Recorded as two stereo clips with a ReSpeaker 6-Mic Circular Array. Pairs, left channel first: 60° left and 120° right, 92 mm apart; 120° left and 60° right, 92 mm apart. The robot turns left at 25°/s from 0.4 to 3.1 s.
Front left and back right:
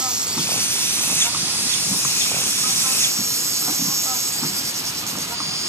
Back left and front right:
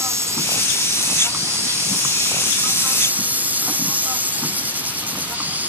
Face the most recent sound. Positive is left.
turn(degrees=-115)